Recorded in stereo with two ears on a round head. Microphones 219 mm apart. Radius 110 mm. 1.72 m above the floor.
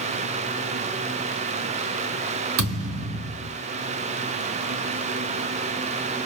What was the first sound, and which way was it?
A thud, 60° right (ahead or behind).